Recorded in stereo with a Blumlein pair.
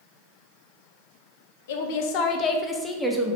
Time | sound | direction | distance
1.7 | a woman speaking | 55° left | 0.8 m